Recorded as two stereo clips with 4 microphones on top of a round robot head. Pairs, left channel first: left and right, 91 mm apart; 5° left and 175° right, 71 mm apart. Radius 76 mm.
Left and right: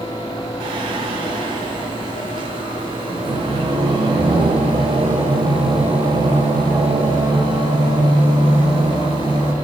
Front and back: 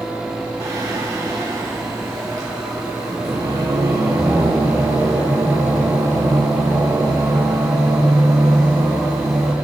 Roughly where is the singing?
Behind right.